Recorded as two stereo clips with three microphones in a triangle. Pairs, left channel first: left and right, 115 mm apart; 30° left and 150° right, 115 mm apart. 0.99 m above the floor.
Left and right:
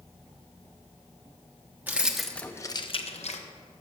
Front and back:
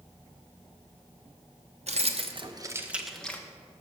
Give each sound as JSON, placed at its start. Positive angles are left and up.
{"t": 1.9, "sound": "keys jangling", "azimuth_deg": -165, "distance_m": 0.7}